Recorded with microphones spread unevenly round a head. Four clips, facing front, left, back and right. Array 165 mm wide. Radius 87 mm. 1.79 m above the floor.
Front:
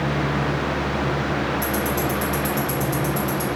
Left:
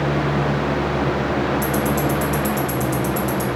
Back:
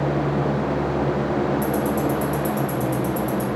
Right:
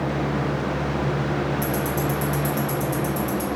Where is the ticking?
30° left, 0.6 m.